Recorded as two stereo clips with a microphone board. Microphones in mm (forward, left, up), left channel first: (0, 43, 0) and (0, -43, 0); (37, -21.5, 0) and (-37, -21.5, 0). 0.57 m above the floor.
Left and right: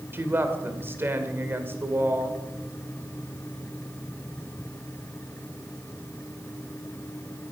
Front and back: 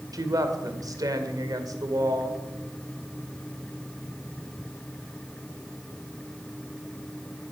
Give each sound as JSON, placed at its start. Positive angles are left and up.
{"t": 0.1, "sound": "a woman speaking", "azimuth_deg": -150, "distance_m": 1.9}